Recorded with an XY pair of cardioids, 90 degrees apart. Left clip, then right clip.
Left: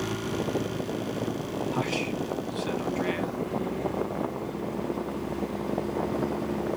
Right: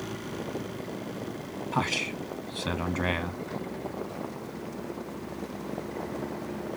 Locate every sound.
1.7 s a man speaking: 60° right, 1.2 m